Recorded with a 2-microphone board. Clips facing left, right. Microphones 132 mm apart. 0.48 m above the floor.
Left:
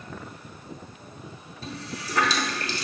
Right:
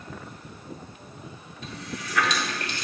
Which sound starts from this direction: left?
A running tap, at 1.6 s.